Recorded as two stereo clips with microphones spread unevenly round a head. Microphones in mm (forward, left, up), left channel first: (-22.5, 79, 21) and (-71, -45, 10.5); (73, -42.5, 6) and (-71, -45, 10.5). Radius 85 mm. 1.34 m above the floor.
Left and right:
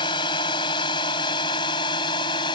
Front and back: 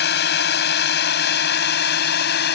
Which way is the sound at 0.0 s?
5° left.